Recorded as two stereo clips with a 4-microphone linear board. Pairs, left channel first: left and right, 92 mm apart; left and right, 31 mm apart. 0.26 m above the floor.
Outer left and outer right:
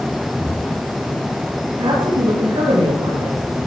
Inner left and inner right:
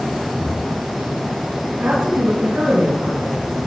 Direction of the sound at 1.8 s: 70° right (ahead or behind).